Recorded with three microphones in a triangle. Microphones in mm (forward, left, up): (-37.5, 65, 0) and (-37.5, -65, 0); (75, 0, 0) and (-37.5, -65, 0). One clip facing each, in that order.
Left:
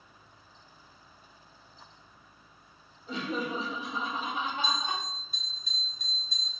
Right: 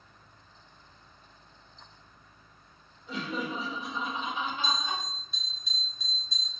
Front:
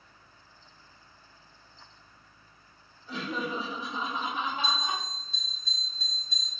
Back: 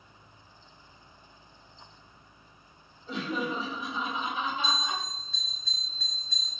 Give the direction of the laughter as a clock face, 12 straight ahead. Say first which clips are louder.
Left 1 dB, back 2 dB; 7 o'clock.